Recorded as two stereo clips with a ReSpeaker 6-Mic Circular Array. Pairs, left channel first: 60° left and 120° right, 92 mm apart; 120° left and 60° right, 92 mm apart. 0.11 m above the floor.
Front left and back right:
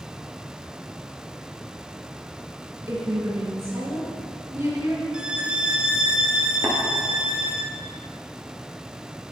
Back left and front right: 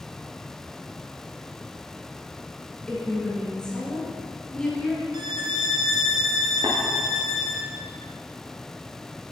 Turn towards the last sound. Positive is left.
turn(degrees=-55)